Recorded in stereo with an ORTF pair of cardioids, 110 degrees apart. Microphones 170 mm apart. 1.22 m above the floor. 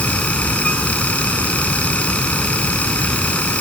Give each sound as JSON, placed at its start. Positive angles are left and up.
{"t": 0.0, "sound": "a fan", "azimuth_deg": 10}